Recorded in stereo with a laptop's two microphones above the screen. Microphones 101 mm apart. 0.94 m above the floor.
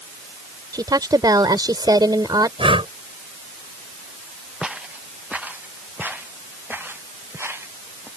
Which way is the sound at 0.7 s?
40° right (ahead or behind).